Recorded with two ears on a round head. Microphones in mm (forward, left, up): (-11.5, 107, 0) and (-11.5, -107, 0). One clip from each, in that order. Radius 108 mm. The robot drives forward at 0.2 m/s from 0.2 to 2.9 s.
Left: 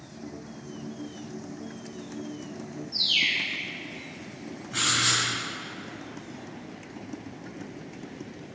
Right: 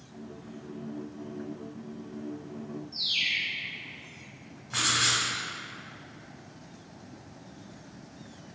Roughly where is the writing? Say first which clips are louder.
Left 1 dB; right.